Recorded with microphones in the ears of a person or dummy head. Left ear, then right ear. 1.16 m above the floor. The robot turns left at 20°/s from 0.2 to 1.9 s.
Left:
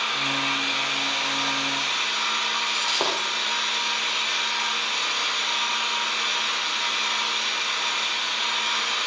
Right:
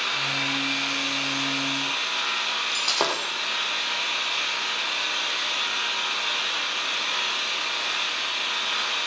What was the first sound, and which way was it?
An engine running, 145° left.